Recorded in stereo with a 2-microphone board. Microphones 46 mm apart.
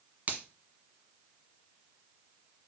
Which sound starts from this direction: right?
A finger snap, at 0.3 s.